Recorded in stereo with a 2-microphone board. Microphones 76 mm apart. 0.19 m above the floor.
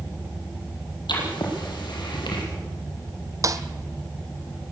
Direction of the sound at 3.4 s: 45° right (ahead or behind).